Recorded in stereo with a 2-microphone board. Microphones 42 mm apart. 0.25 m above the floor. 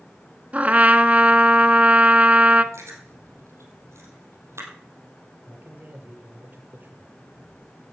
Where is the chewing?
80° right, 4 m.